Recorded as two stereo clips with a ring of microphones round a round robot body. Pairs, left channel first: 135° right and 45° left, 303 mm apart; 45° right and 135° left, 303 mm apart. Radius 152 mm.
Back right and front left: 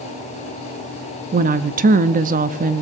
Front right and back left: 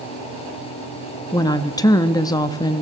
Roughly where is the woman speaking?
Ahead.